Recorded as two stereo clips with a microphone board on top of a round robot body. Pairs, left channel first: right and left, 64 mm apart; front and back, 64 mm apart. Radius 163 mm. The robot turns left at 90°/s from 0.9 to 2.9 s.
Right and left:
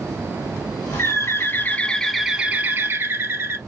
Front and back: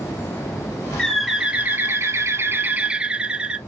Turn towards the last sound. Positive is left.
turn(degrees=115)